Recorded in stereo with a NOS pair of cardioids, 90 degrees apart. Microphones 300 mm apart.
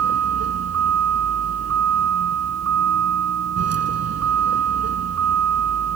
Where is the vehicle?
55° right.